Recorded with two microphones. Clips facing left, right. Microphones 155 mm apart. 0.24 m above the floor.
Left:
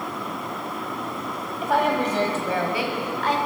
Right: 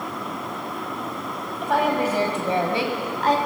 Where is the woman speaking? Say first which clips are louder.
Even; 5° left (ahead or behind), 1.3 m; by 3.4 s 40° right (ahead or behind), 1.6 m.